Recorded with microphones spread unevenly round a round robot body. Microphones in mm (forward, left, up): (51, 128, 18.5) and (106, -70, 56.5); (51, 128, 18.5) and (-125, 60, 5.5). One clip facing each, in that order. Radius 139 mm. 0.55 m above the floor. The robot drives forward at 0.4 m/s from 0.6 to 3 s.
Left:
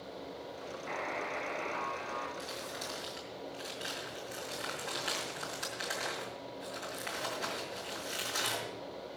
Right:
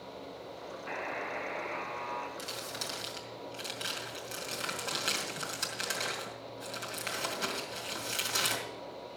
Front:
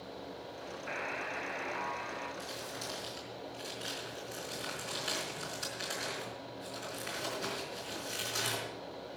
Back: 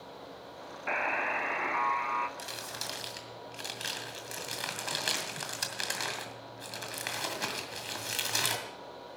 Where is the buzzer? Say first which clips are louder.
Even, back 8 dB; 155° right, 0.6 m; by 2.3 s 165° right, 1.1 m.